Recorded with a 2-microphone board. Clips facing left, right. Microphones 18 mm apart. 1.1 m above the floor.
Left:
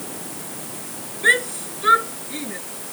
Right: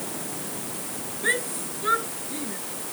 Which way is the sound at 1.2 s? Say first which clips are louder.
Left 8 dB; 35° left (ahead or behind).